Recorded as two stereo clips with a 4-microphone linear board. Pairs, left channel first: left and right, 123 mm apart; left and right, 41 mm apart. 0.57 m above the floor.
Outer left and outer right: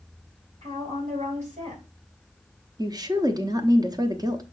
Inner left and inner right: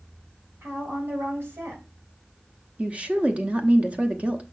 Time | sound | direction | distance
0.6 | a woman speaking | 70° right (ahead or behind) | 3.5 m
2.8 | a woman speaking | 30° right (ahead or behind) | 0.9 m